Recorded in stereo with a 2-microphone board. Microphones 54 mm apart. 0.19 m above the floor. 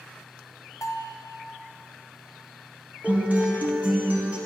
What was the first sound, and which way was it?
A bell, 85° left.